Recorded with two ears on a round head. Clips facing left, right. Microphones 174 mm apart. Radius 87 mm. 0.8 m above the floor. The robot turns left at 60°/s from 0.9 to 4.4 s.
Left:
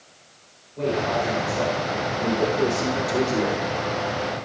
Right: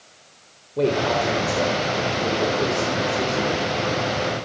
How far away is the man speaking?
About 3.5 m.